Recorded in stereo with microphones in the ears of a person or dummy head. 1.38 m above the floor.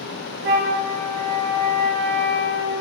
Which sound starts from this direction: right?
A flute, at 0.4 s.